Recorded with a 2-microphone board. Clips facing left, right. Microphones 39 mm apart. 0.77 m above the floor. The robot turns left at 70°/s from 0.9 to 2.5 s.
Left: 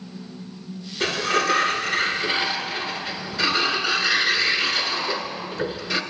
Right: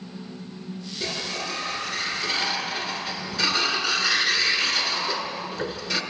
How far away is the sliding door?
About 1.9 m.